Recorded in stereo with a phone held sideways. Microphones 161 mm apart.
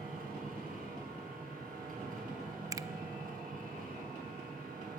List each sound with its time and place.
0.0 s a machine running: 60° right (ahead or behind), 8.5 m
2.7 s a finger snap: 20° right (ahead or behind), 0.7 m